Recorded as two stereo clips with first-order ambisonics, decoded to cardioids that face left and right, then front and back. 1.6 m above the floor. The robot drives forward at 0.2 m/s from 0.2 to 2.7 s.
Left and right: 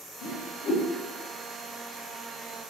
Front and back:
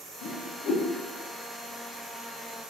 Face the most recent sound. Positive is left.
turn(degrees=80)